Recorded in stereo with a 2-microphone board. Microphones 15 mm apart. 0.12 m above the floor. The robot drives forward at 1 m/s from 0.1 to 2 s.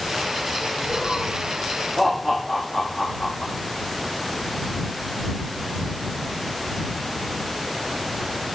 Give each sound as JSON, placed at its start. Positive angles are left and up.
{"t": 0.9, "sound": "laughter", "side_deg": 0, "distance_m": 2.5}